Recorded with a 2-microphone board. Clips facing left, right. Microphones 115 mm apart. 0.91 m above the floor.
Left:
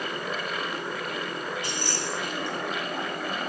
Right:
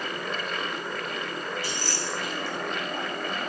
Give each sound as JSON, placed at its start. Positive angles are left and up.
{"t": 1.6, "sound": "keys jangling", "side_deg": 20, "distance_m": 5.0}